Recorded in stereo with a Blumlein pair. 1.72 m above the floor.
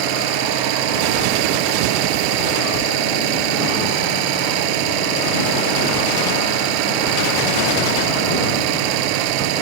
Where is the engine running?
45° right.